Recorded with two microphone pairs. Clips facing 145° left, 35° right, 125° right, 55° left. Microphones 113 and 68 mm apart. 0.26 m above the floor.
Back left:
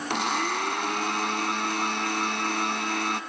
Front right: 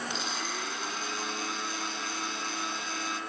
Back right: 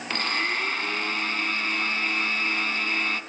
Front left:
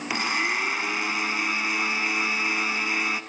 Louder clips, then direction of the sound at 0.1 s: Back left 9 dB, front left 1 dB; 135° left.